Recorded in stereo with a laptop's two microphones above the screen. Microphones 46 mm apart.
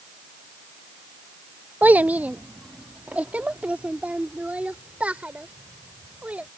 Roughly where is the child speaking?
Right.